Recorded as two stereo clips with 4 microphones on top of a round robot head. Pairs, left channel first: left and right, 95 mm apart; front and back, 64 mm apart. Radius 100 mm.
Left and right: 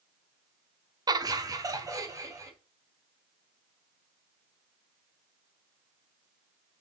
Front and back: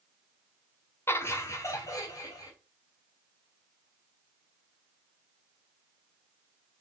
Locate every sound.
1.1 s laughter: 45° right, 1.2 m; by 2.5 s 35° right, 2.5 m